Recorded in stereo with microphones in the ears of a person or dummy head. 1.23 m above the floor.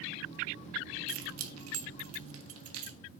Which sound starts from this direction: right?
Keys jangling, at 1.1 s.